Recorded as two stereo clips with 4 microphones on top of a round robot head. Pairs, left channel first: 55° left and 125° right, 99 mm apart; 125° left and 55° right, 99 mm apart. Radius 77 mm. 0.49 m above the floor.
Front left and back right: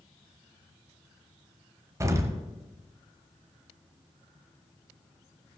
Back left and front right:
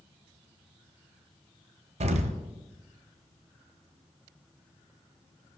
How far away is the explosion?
About 1.0 m.